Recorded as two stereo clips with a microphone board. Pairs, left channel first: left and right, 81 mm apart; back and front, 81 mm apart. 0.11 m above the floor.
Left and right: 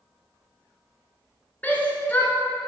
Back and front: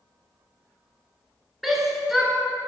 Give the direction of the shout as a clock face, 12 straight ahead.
9 o'clock.